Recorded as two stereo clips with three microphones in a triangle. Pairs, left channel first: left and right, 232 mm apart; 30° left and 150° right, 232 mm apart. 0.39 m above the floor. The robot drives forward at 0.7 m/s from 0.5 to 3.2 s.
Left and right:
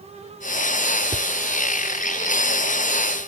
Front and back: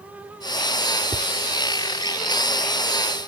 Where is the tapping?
100° right; by 1.3 s 110° right.